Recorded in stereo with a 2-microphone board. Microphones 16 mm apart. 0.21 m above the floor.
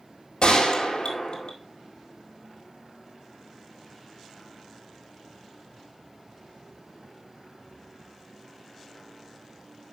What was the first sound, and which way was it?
A gunshot, 60° left (ahead or behind).